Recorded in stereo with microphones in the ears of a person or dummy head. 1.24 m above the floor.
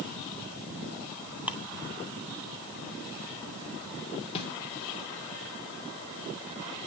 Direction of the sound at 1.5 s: 5° right (ahead or behind).